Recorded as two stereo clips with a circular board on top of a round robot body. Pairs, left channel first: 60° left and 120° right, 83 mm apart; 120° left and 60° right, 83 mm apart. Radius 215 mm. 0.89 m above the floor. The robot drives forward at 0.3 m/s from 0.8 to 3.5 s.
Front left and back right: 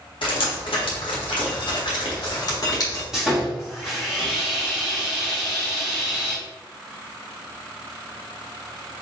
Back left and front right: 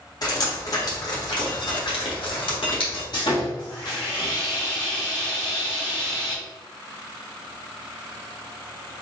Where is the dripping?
75° left, 1.1 m; by 3.0 s 110° left, 1.1 m.